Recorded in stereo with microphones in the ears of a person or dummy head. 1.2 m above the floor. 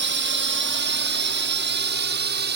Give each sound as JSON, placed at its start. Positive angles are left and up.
{"t": 0.0, "sound": "a drone", "side_deg": -60}